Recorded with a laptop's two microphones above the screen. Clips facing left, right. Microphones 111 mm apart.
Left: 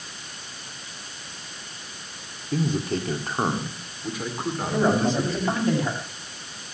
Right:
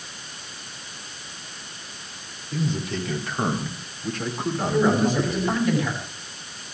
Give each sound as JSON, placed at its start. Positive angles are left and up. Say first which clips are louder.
{"t": 2.5, "sound": "a man speaking", "louder": "left 2 dB", "side_deg": 50, "distance_m": 3.0}
{"t": 4.7, "sound": "a man speaking", "louder": "right 1 dB", "side_deg": 30, "distance_m": 8.5}